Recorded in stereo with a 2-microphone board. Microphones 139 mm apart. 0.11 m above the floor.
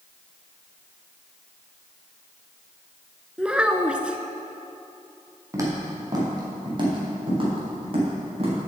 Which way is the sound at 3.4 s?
10° right (ahead or behind).